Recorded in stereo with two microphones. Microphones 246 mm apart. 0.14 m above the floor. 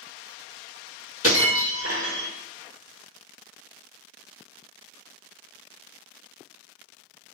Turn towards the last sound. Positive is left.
turn(degrees=65)  # may be behind; listen again after turning